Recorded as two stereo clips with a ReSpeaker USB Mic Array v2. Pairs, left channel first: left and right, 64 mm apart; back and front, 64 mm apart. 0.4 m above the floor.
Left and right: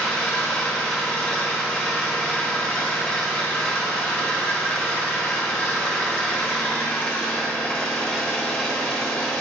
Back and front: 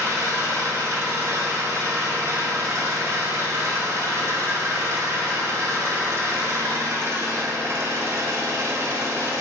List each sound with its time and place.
0.0 s an engine running: 10° left, 1.0 m